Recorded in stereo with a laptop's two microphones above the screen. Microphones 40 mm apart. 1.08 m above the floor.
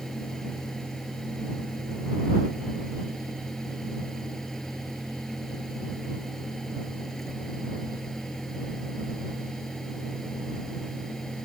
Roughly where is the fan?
Centre.